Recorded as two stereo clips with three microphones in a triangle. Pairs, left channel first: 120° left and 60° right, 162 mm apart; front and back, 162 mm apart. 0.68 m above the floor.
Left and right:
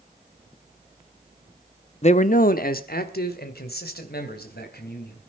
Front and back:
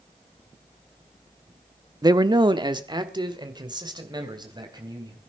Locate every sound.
2.0 s a man speaking: 125° left, 0.7 m; by 5.2 s 115° left, 4 m